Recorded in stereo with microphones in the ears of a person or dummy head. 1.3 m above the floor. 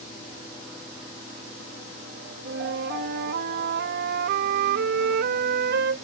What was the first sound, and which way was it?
A flute, 55° right (ahead or behind).